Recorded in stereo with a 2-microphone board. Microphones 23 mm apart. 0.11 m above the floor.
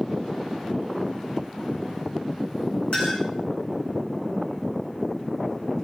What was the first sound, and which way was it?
A clink, 50° left (ahead or behind).